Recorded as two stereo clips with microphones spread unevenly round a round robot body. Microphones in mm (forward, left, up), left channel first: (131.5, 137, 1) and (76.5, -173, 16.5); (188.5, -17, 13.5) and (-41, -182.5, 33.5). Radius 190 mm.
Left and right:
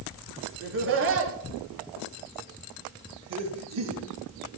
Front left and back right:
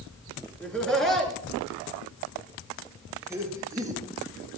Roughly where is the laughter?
Ahead right.